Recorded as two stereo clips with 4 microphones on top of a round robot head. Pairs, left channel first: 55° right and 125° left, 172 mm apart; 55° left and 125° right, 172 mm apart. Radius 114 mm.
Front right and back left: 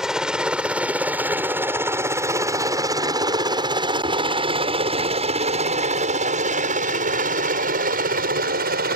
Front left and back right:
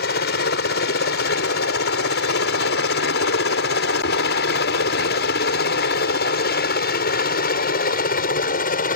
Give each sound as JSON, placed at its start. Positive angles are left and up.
{"t": 0.0, "sound": "a helicopter", "azimuth_deg": 40}